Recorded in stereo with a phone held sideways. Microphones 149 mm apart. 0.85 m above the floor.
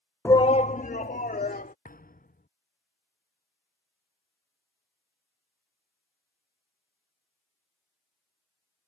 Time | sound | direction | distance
0.2 | a shout | 15° left (ahead or behind) | ?
1.9 | a thud | 70° left (ahead or behind) | ?